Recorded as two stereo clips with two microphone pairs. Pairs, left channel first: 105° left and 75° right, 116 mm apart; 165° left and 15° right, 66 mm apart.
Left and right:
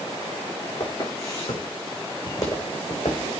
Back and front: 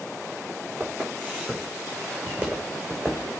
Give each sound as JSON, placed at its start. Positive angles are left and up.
{"t": 0.8, "sound": "footsteps", "azimuth_deg": 45, "distance_m": 5.5}